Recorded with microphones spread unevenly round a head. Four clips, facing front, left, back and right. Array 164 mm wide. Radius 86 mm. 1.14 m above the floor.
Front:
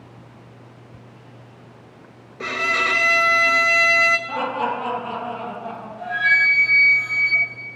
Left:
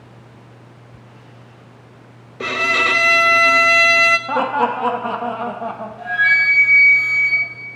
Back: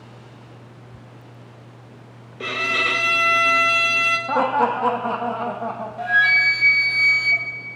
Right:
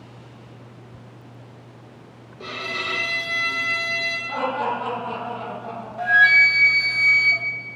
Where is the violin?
90° left, 0.5 m.